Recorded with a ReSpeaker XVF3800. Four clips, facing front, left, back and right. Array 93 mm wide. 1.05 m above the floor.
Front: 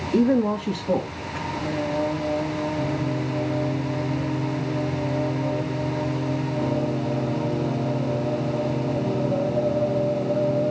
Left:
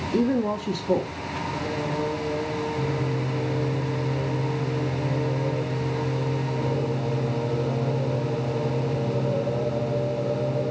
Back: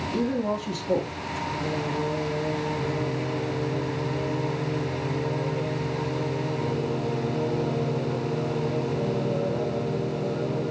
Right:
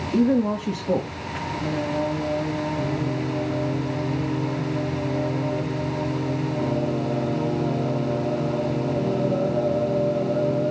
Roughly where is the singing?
Ahead right.